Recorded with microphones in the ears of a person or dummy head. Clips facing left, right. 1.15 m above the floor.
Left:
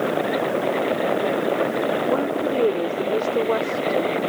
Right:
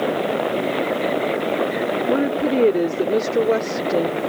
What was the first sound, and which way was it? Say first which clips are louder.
A woman speaking: right 3 dB; 25° right (ahead or behind).